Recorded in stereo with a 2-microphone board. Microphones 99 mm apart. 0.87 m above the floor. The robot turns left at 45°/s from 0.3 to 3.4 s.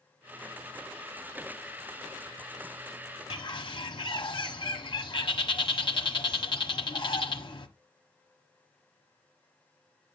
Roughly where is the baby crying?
I don't hear a baby crying.